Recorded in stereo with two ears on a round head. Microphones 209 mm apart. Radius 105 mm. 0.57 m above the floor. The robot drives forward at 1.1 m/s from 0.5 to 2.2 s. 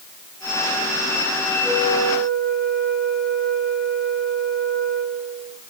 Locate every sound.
1.6 s a flute: 25° left (ahead or behind), 9 m